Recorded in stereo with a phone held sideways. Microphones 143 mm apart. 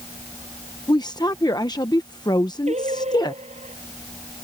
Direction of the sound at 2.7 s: 50° right (ahead or behind).